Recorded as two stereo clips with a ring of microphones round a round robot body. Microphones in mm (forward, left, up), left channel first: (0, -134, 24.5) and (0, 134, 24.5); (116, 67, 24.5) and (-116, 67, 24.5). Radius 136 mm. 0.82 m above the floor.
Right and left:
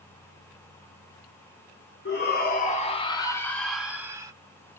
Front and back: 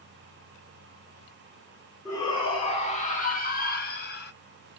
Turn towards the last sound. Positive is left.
turn(degrees=20)